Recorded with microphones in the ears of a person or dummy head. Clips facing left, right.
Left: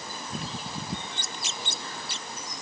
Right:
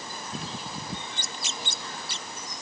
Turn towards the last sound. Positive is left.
No sound to turn to.